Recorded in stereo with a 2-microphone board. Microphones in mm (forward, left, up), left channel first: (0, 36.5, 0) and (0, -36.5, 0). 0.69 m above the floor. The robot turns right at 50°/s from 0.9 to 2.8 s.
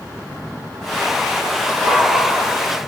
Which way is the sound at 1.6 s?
70° right (ahead or behind).